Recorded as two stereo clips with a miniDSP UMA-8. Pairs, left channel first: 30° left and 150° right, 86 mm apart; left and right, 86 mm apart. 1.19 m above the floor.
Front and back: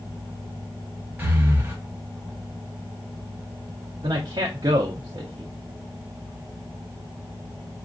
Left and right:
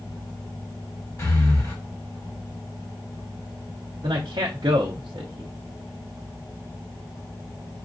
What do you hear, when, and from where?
1.2 s breathing: 140° left, 1.1 m
4.0 s a man speaking: 115° right, 0.5 m